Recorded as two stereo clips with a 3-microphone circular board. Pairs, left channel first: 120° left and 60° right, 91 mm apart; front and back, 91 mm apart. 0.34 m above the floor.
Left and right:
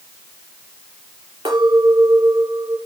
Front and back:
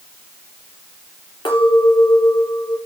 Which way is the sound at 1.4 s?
35° right.